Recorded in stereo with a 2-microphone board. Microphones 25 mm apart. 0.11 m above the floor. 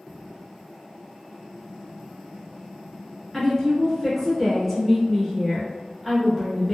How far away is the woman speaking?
About 1.6 m.